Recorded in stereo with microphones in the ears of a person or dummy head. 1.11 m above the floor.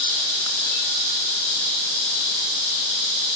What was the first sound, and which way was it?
Only background noise.